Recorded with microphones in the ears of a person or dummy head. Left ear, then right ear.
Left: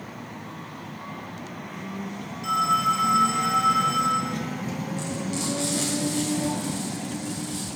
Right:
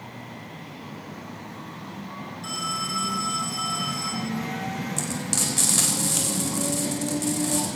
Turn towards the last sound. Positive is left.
turn(degrees=-55)  # may be behind; listen again after turning